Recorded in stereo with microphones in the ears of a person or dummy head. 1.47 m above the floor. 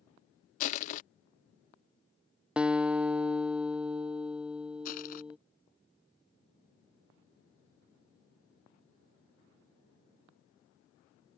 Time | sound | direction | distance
0.6 | crushing | 45° left (ahead or behind) | ?
2.6 | a guitar | 5° right (ahead or behind) | ?
4.8 | crushing | 50° left (ahead or behind) | ?